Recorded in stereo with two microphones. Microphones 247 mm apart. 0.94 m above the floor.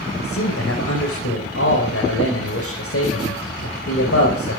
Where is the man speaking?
65° left (ahead or behind), 5.5 m.